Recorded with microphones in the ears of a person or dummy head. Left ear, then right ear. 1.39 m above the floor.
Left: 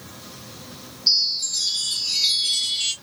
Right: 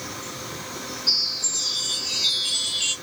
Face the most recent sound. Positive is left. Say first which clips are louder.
# left 3 dB
turn(degrees=30)  # may be behind; listen again after turning